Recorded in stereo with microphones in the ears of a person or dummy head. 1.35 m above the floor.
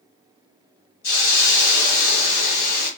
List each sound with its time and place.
1.0 s a hiss: 55° left (ahead or behind), 1.3 m